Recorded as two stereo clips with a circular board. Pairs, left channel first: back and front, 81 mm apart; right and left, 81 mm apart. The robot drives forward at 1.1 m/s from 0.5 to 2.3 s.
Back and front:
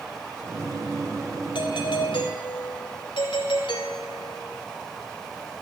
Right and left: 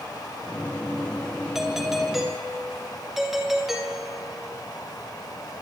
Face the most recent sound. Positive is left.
turn(degrees=175)